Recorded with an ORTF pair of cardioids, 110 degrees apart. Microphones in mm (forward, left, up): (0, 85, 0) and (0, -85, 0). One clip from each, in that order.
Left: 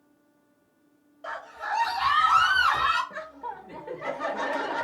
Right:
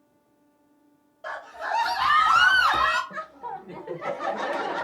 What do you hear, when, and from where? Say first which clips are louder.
1.2 s a scream: right 1 dB; 10° right, 0.7 m; by 3.0 s 75° right, 0.9 m
3.1 s laughter: right 2 dB; 10° right, 0.6 m